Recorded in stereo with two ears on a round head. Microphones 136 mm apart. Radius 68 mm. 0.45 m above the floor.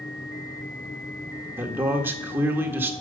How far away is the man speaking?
About 1.4 m.